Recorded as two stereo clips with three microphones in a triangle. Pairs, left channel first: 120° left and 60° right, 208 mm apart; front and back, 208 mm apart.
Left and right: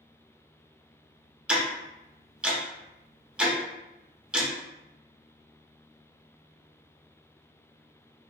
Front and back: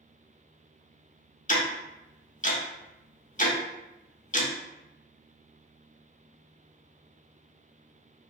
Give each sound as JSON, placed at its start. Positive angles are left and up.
{"t": 1.5, "sound": "ticking", "azimuth_deg": 20, "distance_m": 0.6}